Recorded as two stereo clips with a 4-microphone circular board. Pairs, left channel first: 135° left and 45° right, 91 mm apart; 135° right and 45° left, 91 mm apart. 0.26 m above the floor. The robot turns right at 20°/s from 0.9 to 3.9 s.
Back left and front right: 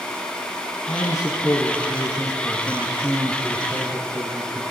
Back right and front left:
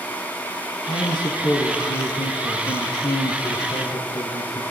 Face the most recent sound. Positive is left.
turn(degrees=-115)